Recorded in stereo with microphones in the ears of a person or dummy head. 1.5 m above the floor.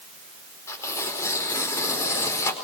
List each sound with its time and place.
0.7 s tearing paper: 15° left (ahead or behind), 4.5 m